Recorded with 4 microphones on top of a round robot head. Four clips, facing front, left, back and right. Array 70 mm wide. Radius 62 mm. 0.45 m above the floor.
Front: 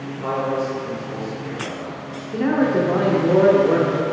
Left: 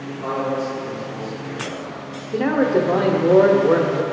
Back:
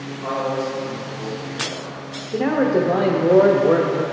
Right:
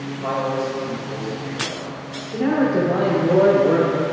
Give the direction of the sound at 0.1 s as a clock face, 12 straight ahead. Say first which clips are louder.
Even, front 1 dB; 11 o'clock.